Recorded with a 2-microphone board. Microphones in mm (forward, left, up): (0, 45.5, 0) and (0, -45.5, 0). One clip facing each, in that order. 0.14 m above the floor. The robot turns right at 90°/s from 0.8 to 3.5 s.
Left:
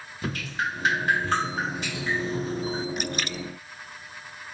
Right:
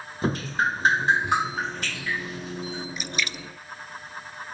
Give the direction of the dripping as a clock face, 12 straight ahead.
2 o'clock.